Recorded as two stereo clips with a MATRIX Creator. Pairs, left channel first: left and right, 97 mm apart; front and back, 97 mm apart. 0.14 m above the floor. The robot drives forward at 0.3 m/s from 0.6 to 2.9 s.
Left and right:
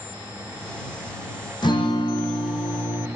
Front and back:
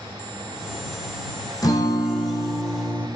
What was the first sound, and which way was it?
A guitar, 50° left.